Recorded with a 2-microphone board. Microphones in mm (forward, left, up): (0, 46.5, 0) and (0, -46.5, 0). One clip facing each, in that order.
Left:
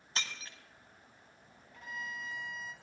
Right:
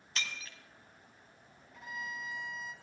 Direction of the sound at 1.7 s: 10° right (ahead or behind).